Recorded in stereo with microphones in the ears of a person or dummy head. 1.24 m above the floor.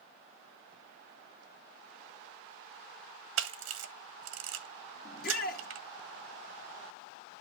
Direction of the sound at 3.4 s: 75° right (ahead or behind).